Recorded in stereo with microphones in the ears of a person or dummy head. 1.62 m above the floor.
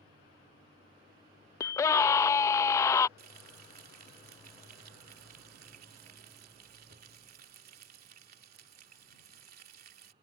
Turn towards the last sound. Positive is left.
turn(degrees=-50)  # may be behind; listen again after turning